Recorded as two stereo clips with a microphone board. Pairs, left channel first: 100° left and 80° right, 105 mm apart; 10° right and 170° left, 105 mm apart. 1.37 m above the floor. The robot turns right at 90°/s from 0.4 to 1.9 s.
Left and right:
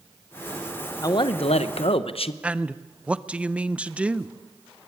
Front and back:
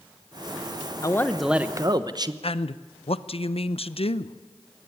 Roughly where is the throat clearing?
No throat clearing in this recording.